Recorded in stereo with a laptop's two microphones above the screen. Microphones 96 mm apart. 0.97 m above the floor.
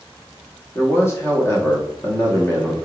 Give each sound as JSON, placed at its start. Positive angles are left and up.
{"t": 0.8, "sound": "a man speaking", "side_deg": 25, "distance_m": 0.9}